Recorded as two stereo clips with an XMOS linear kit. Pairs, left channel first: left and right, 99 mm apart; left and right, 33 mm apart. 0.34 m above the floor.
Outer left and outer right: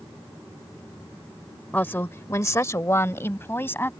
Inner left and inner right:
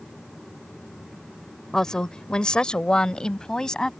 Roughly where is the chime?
I don't hear a chime.